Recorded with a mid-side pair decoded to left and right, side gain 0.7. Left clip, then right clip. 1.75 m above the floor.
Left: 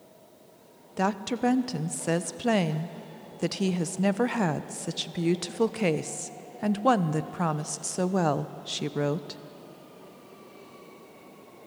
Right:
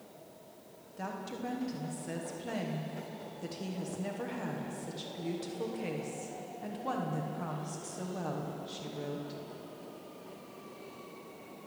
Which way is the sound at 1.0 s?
55° left.